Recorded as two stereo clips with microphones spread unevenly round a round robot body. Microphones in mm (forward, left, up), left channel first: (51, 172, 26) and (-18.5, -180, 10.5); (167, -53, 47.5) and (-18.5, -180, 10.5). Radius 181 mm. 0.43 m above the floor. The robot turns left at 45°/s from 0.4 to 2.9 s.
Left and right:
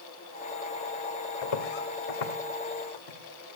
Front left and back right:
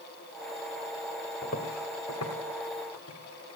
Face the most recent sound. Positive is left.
turn(degrees=65)